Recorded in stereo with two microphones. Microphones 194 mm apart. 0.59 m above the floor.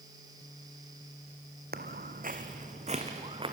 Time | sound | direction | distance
1.7 | footsteps | 55° right (ahead or behind) | 1.4 m